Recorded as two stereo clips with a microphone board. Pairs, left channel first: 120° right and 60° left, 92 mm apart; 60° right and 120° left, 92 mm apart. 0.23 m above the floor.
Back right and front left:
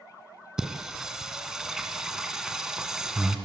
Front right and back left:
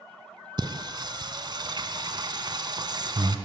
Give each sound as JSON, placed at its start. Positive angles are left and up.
{"t": 0.6, "sound": "singing", "azimuth_deg": 145, "distance_m": 2.0}